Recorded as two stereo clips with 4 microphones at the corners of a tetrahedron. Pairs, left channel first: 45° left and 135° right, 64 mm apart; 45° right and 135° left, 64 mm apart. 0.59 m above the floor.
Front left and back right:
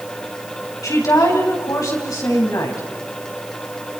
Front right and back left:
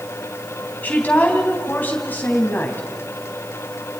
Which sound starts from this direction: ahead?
A woman speaking, at 0.8 s.